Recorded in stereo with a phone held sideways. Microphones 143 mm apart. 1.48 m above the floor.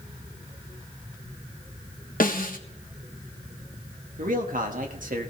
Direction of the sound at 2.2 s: 80° left.